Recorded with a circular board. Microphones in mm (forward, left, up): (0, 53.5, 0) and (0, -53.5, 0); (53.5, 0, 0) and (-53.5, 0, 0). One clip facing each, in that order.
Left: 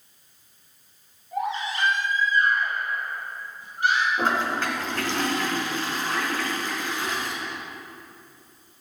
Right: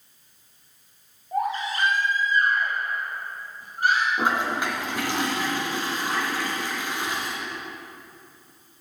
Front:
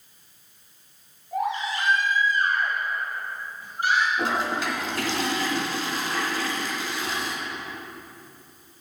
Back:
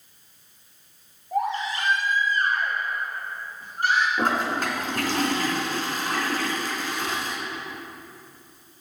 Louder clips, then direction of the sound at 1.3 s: Right 2 dB, back 1 dB; 135° right.